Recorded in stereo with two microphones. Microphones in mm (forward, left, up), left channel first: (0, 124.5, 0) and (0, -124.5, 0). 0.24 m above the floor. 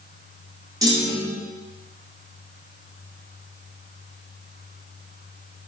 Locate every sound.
0.8 s a clunk: 15° right (ahead or behind), 0.6 m